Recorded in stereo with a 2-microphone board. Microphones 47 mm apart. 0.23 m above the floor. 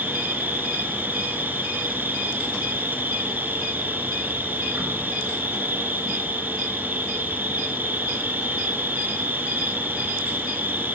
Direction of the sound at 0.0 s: 45° right (ahead or behind).